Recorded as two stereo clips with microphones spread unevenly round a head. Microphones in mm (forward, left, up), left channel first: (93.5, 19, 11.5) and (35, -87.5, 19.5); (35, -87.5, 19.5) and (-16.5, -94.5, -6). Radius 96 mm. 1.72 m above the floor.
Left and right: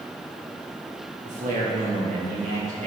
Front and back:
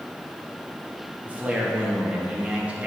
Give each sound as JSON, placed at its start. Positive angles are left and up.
{"t": 1.2, "sound": "a man speaking", "azimuth_deg": -100, "distance_m": 2.5}